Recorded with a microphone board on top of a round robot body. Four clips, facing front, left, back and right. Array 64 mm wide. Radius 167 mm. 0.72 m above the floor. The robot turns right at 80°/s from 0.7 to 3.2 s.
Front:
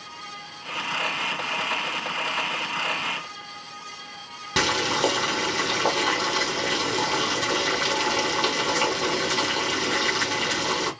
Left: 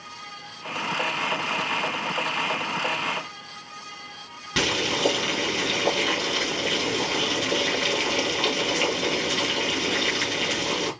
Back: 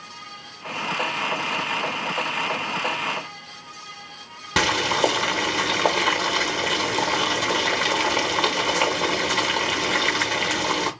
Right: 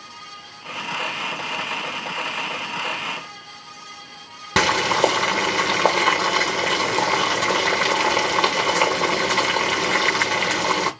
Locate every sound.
4.6 s boiling: 95° right, 0.9 m